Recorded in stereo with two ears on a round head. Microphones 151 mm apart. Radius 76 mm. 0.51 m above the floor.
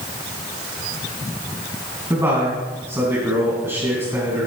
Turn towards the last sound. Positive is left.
turn(degrees=-15)  # may be behind; listen again after turning